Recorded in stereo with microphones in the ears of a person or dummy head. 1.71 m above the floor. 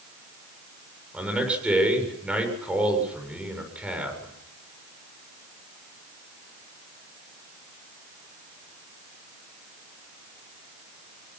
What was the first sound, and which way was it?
A man speaking, 5° right (ahead or behind).